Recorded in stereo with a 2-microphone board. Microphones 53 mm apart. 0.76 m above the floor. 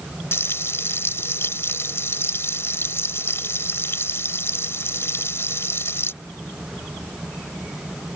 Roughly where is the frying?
Left.